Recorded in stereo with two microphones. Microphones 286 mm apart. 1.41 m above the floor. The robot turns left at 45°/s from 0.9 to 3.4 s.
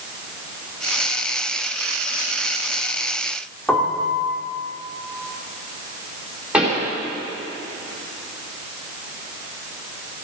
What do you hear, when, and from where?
3.7 s a piano: 5° left (ahead or behind), 1.7 m
6.5 s a pop: 5° right (ahead or behind), 4.5 m